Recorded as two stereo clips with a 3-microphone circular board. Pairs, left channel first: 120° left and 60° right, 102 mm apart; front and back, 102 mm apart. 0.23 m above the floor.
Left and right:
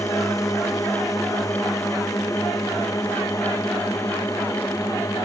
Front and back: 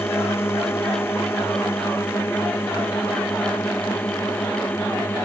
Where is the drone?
65° left; by 5.3 s 70° left.